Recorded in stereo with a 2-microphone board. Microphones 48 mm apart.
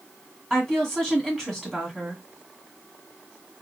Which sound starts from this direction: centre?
A woman speaking, at 0.5 s.